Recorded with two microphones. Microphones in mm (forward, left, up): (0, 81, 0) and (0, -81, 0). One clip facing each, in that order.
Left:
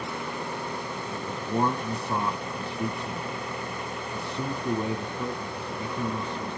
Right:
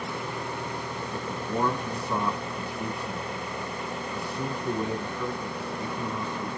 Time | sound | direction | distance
1.1 | a man speaking | 25° left (ahead or behind) | 1.3 m